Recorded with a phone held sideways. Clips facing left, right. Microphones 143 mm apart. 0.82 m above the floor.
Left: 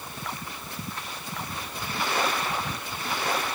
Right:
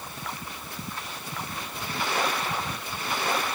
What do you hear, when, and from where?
Only background noise.